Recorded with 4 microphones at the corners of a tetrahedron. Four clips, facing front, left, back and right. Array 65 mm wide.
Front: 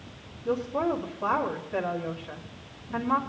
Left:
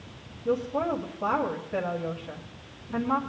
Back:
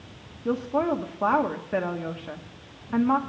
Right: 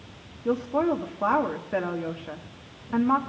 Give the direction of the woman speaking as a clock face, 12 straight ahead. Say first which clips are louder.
Right 3 dB, back 2 dB; 5 o'clock.